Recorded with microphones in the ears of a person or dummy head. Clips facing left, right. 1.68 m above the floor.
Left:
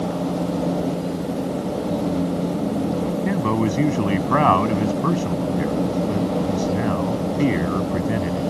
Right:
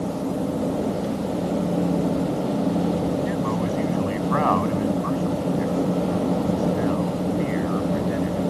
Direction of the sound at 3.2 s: 60° left (ahead or behind).